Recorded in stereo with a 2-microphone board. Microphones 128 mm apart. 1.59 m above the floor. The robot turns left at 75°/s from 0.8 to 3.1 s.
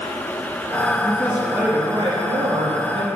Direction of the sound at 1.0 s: 30° left.